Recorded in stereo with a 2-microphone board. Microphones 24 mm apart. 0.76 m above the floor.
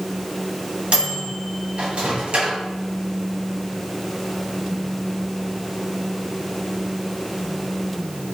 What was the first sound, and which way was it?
A microwave, 50° right (ahead or behind).